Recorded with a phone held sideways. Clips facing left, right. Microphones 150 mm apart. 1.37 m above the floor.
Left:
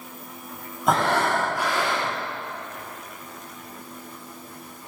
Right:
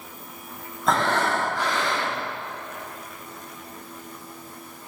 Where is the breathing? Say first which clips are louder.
Left 1 dB; 10° left (ahead or behind), 4 m.